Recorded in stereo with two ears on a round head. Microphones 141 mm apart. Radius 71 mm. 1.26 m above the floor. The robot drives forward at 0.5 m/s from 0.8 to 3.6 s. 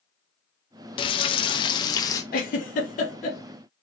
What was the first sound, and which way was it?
Frying, 30° left (ahead or behind).